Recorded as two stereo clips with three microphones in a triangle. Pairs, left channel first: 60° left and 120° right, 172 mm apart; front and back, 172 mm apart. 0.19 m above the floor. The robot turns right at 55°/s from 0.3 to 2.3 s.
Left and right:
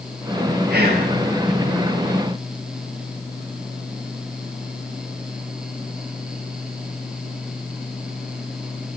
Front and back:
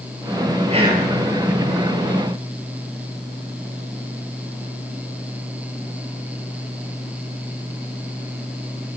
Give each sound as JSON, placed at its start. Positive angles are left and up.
{"t": 0.7, "sound": "whispering", "azimuth_deg": -130, "distance_m": 4.5}